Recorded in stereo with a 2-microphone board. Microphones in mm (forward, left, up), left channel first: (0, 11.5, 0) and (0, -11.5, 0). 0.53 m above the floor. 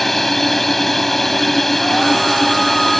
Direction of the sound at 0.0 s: 10° left (ahead or behind).